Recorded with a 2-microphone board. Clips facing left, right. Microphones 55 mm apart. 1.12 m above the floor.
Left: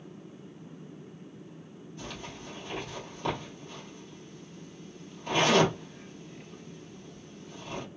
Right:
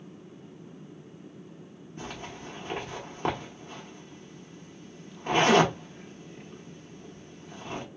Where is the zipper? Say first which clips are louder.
Right 3 dB; 40° right (ahead or behind), 1.3 m.